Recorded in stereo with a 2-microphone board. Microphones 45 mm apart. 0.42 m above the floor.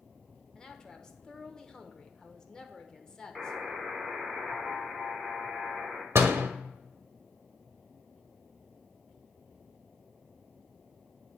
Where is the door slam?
65° right (ahead or behind), 0.9 m.